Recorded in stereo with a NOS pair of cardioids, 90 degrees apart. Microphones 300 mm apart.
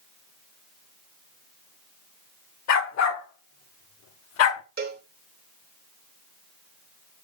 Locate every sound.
2.7 s a dog barking: 65° left, 2 m; by 4.6 s 75° left, 1.0 m
4.8 s a cowbell: 45° right, 2.5 m